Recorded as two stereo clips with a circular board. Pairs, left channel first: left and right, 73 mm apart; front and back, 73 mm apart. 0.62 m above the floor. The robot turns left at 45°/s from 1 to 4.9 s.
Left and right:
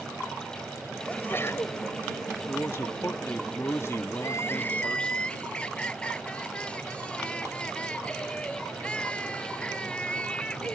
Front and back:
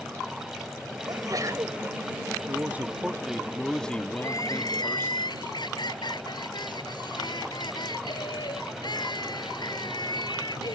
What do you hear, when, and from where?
1.1 s a sneeze: 160° left; by 1.8 s 125° left
2.5 s a man speaking: 135° left; by 5.2 s 25° left
4.2 s crying: 45° left; by 10.8 s 15° left